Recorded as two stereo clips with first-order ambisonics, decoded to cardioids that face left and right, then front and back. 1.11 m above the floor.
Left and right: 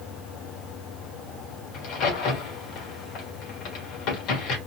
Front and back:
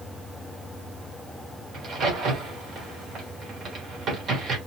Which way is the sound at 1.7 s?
125° left.